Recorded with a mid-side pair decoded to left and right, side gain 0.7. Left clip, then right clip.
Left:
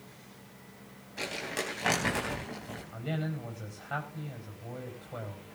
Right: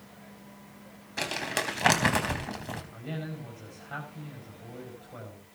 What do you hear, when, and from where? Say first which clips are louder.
1.2 s crumpling: right 4 dB; 40° right, 4 m
2.9 s a man speaking: left 2 dB; 20° left, 5.5 m